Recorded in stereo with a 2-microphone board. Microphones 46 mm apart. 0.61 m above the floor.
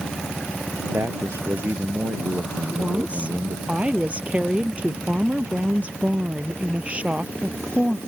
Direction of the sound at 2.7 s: 30° right (ahead or behind).